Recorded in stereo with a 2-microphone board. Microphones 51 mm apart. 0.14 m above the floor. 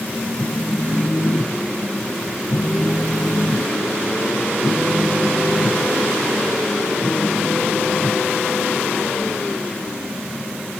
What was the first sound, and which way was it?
A phone buzzing, 75° left (ahead or behind).